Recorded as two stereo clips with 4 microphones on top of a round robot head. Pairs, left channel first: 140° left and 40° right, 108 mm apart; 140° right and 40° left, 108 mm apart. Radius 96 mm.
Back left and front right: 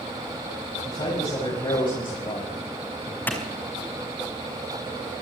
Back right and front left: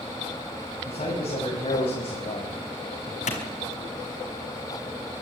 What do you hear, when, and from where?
0.8 s a man speaking: 175° right, 6 m; by 3.2 s 170° right, 3.5 m
3.3 s a clap: 145° right, 5 m